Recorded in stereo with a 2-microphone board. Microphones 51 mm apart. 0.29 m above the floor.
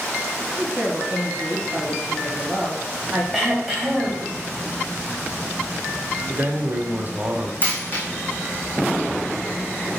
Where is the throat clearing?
5° right (ahead or behind), 1.9 m.